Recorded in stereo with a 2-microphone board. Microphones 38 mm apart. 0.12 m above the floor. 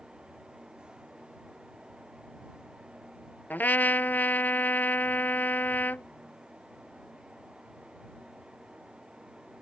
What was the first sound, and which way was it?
A trumpet, 55° left (ahead or behind).